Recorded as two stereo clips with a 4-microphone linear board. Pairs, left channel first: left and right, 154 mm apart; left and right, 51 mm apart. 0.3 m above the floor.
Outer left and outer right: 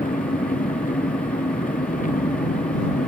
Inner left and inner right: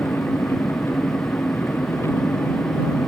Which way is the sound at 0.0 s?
60° left (ahead or behind).